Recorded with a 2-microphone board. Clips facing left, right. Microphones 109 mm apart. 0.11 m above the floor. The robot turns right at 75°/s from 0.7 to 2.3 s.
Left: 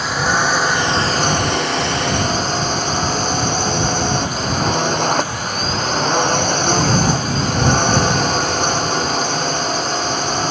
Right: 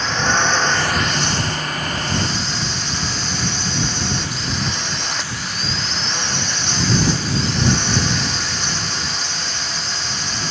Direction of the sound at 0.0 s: 10° left.